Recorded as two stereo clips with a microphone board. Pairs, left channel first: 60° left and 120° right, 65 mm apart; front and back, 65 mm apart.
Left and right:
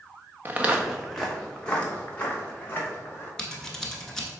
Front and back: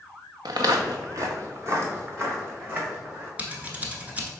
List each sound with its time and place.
0.5 s footsteps: straight behind, 0.7 m; by 3.3 s 120° left, 2.5 m
3.4 s scissors: 135° left, 0.9 m